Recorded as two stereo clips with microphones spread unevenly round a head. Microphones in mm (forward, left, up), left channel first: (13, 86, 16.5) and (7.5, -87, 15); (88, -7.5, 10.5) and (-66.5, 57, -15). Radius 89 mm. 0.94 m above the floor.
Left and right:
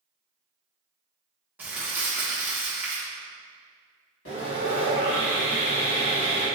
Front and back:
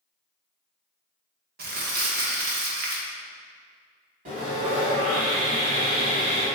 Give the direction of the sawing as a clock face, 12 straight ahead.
8 o'clock.